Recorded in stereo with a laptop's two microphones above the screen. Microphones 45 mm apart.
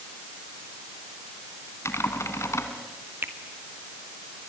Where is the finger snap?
55° right (ahead or behind), 2.5 m.